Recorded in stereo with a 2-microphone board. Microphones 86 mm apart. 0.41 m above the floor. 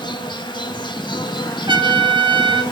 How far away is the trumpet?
About 2 m.